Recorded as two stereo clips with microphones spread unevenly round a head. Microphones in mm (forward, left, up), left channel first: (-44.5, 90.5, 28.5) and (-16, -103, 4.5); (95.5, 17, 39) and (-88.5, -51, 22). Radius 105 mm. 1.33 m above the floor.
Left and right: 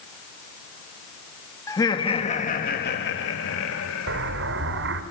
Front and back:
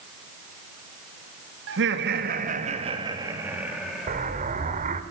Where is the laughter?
175° left, 3 m; by 4.4 s 105° left, 4.5 m.